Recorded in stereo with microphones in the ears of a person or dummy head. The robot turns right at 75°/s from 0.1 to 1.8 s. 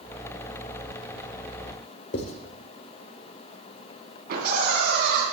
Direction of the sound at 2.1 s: 45° left (ahead or behind).